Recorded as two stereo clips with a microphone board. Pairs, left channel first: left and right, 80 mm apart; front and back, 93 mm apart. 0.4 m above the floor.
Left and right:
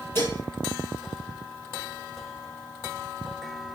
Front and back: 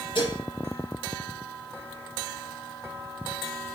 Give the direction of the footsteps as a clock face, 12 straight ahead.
No footsteps in this recording.